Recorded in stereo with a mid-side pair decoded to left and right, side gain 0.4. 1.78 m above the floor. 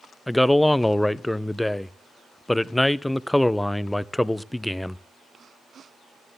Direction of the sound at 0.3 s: 10° left.